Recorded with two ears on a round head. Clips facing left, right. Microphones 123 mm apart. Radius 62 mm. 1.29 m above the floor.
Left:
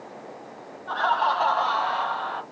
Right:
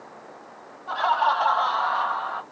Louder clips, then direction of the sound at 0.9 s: Right 1 dB; 10° right (ahead or behind).